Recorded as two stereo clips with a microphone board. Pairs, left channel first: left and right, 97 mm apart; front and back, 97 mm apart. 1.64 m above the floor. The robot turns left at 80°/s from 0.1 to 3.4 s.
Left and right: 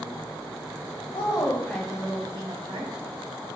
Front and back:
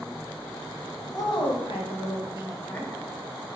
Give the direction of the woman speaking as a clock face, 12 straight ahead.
10 o'clock.